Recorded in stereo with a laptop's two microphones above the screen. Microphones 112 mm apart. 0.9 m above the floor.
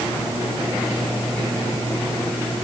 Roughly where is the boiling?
No boiling in this recording.